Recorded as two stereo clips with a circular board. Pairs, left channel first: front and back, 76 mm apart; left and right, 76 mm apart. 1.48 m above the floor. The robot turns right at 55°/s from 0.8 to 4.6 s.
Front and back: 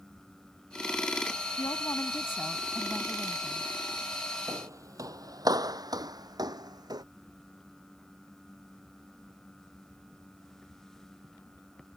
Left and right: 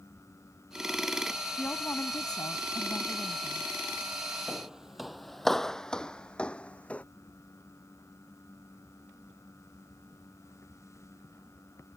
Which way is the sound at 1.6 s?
20° left.